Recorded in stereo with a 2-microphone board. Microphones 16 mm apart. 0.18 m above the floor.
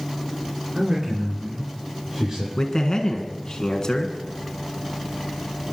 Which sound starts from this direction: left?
A man speaking, at 2.6 s.